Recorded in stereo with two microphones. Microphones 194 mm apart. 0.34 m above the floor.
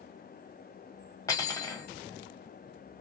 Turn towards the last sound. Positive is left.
turn(degrees=15)  # may be behind; listen again after turning